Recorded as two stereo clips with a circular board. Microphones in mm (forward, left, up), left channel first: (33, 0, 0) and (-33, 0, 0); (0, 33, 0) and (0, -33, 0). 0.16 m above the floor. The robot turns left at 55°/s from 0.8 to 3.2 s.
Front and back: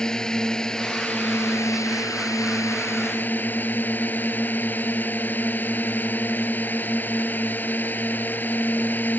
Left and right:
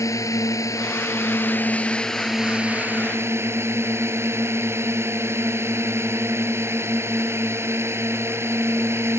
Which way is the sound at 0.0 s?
80° left.